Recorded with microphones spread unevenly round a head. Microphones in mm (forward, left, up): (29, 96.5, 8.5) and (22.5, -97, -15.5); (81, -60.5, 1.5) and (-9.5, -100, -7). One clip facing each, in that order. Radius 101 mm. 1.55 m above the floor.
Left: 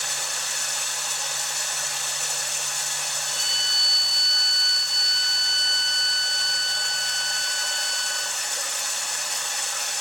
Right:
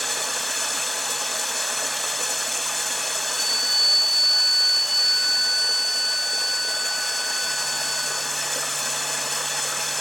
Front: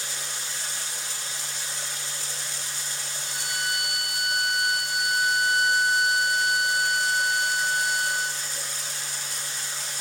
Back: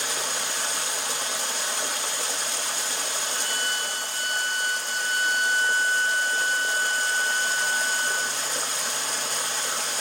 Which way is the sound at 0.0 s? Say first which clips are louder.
Right 6 dB, back 7 dB; 135° right.